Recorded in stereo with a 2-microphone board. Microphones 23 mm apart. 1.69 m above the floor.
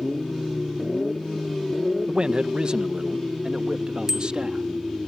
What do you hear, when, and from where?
2.1 s a man speaking: 45° right (ahead or behind); by 4.7 s 50° right (ahead or behind)
4.1 s a bicycle bell: 25° right (ahead or behind)